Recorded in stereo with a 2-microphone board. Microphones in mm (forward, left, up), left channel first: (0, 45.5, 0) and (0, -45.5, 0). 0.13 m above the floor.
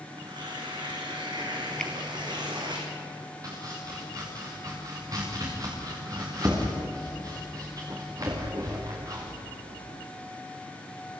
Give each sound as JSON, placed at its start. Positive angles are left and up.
{"t": 0.1, "sound": "tearing paper", "side_deg": -55, "distance_m": 5.0}
{"t": 1.8, "sound": "a finger snap", "side_deg": 10, "distance_m": 2.5}
{"t": 3.4, "sound": "chopping", "side_deg": -40, "distance_m": 5.5}